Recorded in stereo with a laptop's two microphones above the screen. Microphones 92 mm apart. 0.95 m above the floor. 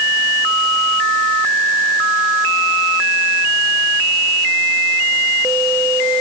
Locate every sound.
Only background noise.